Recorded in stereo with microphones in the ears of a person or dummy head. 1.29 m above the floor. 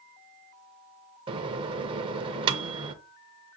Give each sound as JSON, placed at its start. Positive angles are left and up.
{"t": 1.3, "sound": "a microwave", "side_deg": -25, "distance_m": 0.6}